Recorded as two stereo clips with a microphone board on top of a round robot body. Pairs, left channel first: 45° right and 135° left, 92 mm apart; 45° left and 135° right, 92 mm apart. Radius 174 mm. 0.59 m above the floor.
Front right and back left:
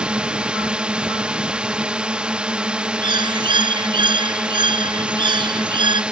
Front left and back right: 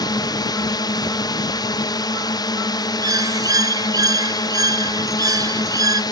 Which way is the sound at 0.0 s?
60° left.